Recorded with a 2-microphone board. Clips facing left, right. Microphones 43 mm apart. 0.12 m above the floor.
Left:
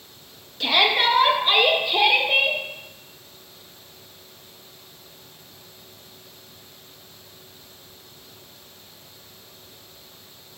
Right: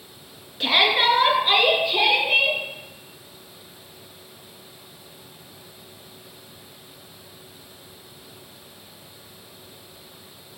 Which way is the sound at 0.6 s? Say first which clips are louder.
Right 1 dB; 15° right (ahead or behind).